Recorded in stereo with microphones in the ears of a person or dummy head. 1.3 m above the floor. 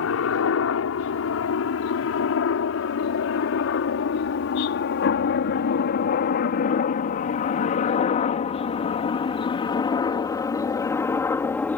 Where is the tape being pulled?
I don't hear tape being pulled.